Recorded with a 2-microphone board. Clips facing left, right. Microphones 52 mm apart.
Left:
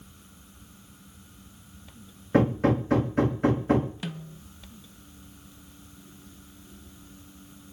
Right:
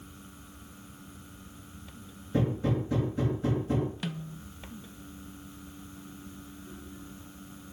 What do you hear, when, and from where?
2.3 s hammering: 65° left (ahead or behind), 2.5 m
4.0 s a snare drum: centre (ahead or behind), 1.1 m